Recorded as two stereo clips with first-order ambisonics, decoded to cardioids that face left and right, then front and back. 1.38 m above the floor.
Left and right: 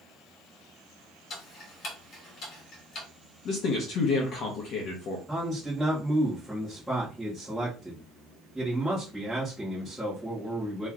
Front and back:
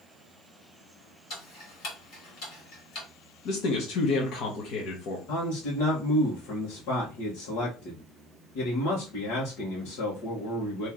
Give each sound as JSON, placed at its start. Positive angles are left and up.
{"t": 1.3, "sound": "ticking", "azimuth_deg": 40, "distance_m": 2.0}
{"t": 3.5, "sound": "a man speaking", "azimuth_deg": 40, "distance_m": 1.0}
{"t": 5.3, "sound": "a man speaking", "azimuth_deg": 0, "distance_m": 1.5}